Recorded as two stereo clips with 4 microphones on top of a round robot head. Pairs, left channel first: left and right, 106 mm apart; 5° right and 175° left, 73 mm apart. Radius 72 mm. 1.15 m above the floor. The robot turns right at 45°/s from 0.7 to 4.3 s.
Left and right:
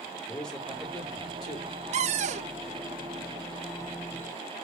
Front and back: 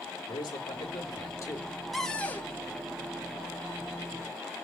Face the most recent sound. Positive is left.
turn(degrees=10)